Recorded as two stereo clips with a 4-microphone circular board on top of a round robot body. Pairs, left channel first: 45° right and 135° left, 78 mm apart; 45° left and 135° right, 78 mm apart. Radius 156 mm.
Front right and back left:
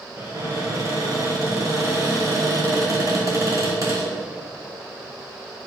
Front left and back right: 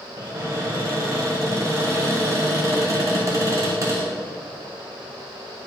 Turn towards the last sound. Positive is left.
turn(degrees=175)